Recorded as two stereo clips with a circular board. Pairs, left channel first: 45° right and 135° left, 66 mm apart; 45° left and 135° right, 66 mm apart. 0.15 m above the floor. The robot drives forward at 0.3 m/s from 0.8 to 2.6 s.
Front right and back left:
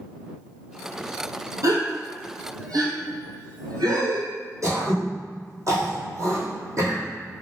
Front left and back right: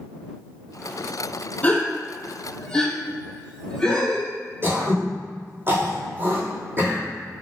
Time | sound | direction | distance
1.6 | a gasp | 110° left | 0.8 m
4.6 | throat clearing | 170° left | 1.8 m